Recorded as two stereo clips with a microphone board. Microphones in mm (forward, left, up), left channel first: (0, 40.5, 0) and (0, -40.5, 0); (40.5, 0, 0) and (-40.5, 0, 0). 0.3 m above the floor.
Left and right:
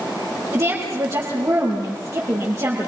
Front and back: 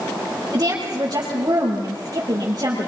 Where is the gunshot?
No gunshot in this recording.